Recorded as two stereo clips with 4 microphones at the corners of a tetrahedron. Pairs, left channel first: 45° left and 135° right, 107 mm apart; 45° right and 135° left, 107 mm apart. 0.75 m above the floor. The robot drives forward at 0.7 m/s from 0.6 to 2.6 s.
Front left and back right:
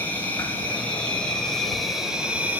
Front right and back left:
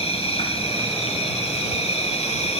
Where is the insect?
30° right, 2.5 m; by 2.6 s 60° right, 1.2 m.